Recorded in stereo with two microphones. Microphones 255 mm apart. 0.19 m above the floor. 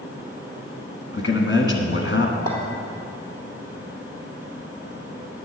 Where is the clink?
70° left (ahead or behind), 3 m.